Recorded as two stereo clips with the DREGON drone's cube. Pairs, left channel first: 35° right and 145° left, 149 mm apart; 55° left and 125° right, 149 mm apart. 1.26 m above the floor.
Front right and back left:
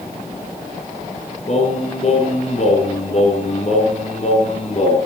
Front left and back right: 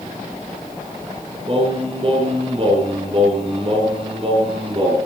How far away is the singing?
About 3.5 m.